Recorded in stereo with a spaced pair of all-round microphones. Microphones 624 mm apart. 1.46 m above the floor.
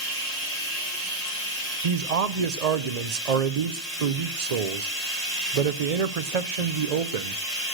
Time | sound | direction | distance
0.0 | running water | 80° left | 5 m
1.8 | a man speaking | 75° right (ahead or behind) | 0.8 m